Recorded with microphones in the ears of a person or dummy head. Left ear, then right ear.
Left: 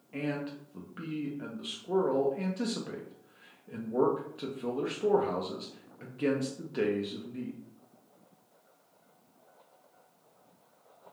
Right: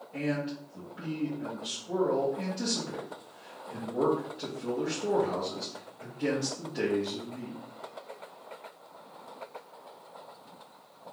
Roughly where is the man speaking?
Left.